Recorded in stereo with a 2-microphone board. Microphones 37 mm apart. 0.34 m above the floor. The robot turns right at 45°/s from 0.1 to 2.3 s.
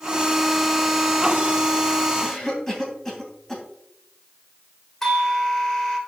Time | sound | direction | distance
2.2 | a cough | 10° left (ahead or behind) | 2 m
5.0 | a doorbell | 10° left (ahead or behind) | 1.3 m